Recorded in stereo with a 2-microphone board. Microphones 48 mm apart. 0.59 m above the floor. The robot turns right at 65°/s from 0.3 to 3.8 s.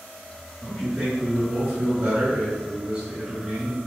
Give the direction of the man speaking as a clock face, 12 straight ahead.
7 o'clock.